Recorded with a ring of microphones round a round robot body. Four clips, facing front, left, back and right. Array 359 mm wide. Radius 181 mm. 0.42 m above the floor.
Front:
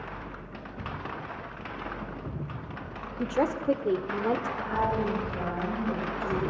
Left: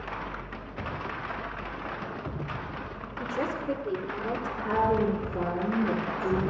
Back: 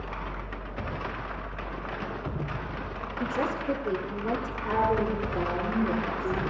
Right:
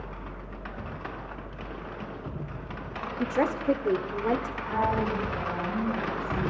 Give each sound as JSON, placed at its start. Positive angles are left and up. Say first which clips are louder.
{"t": 3.2, "sound": "a woman speaking", "louder": "right 4 dB, front 3 dB", "azimuth_deg": -45, "distance_m": 1.4}
{"t": 4.6, "sound": "a woman speaking", "louder": "left 2 dB, back 2 dB", "azimuth_deg": 115, "distance_m": 6.0}